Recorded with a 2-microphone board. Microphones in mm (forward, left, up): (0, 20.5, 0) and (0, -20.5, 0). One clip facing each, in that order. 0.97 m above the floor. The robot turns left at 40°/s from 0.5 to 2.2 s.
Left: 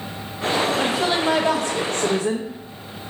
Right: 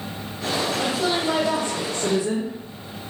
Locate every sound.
0.8 s a woman speaking: 120° left, 0.7 m; by 2.5 s 60° left, 0.7 m